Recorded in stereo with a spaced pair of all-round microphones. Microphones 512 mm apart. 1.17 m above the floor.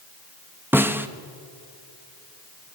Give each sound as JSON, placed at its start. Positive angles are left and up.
{"t": 0.7, "sound": "a snare drum", "side_deg": -5, "distance_m": 0.8}